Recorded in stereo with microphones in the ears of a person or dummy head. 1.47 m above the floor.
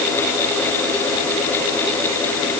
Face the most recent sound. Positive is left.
No sound to turn to.